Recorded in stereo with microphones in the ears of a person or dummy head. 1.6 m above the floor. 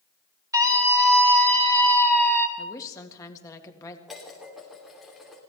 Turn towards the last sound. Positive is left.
turn(degrees=0)  # may be behind; listen again after turning